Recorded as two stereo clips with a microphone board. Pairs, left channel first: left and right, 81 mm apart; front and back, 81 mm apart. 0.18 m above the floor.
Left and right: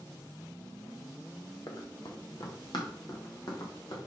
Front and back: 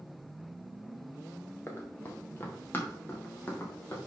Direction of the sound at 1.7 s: 60° left.